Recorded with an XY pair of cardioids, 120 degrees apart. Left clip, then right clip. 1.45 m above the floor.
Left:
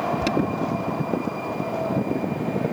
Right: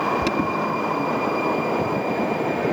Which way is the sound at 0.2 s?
Straight ahead.